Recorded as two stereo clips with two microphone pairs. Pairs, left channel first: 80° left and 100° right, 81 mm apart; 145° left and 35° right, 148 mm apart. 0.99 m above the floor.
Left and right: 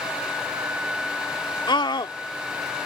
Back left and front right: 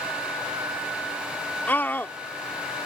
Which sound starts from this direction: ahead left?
A scream, at 1.7 s.